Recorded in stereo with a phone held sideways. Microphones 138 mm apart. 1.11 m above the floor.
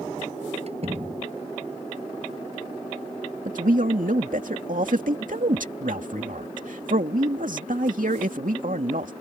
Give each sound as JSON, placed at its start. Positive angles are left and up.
{"t": 0.7, "sound": "a door slam", "side_deg": -45}
{"t": 3.5, "sound": "a man speaking", "side_deg": -75}